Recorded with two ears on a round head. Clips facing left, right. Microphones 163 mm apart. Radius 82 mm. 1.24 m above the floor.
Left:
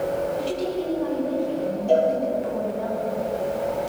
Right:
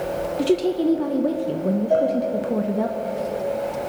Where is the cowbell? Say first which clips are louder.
Left 2 dB; 80° left, 7 m.